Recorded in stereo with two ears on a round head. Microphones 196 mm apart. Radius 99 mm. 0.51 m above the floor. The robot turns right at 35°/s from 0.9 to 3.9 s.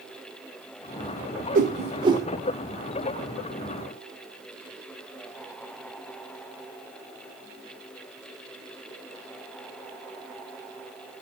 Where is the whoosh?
35° right (ahead or behind), 0.6 m; by 2.3 s 15° right (ahead or behind), 0.6 m.